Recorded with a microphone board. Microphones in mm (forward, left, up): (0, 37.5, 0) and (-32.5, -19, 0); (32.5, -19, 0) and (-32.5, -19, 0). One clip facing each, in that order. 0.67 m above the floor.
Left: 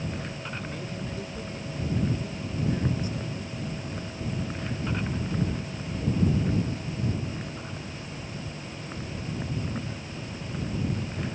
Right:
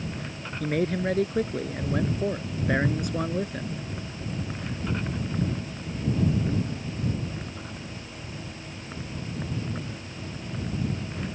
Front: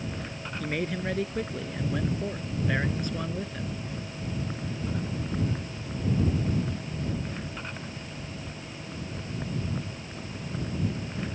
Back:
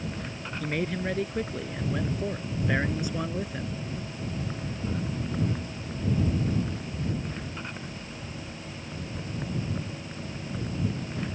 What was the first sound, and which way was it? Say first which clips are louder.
A man speaking: right 10 dB, back 1 dB; 90° right.